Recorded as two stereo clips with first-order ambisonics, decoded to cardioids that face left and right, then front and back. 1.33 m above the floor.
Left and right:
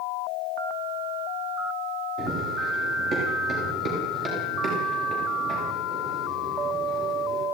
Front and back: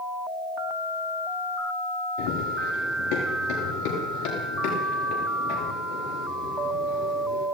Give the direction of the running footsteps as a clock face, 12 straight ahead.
1 o'clock.